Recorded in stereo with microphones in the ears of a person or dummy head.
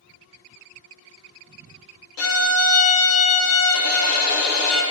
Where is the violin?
85° left, 0.9 m.